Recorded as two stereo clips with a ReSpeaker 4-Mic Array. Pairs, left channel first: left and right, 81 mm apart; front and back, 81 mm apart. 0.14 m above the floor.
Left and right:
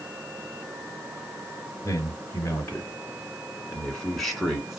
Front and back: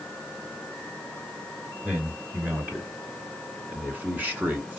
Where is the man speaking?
120° left, 2 m; by 4.8 s 160° right, 1.7 m.